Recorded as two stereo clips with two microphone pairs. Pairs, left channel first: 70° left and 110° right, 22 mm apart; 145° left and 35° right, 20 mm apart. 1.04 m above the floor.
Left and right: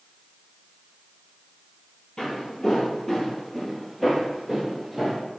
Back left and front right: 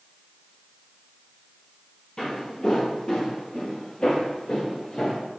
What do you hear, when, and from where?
2.2 s footsteps: 110° left, 1.5 m; by 5.2 s straight behind, 1.8 m